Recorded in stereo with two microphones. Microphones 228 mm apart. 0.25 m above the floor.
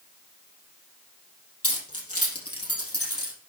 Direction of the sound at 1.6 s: 75° left (ahead or behind).